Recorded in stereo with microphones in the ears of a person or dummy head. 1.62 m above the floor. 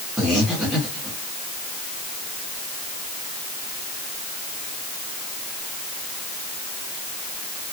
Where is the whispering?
I don't hear whispering.